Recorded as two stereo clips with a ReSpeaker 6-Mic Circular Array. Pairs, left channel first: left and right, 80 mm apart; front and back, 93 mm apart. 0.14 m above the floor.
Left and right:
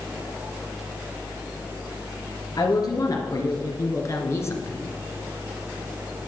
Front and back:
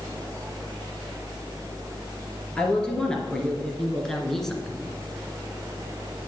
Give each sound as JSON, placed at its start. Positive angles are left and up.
{"t": 2.6, "sound": "a woman speaking", "azimuth_deg": 80, "distance_m": 2.5}